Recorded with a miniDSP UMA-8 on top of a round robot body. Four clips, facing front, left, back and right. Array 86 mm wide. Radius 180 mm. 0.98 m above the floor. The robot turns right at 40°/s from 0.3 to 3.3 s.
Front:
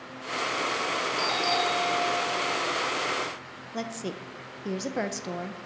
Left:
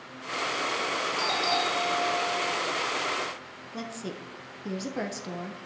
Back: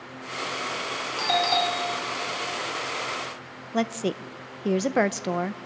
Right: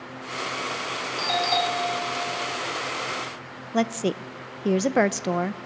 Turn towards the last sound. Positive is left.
turn(degrees=-125)